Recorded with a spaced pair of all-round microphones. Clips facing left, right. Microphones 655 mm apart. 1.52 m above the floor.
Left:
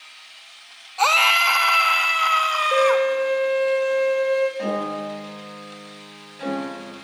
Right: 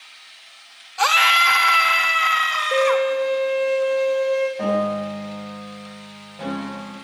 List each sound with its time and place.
1.0 s a scream: 45° right (ahead or behind), 1.1 m
2.7 s a violin: 45° right (ahead or behind), 4.5 m
4.6 s a piano: 70° right (ahead or behind), 5.5 m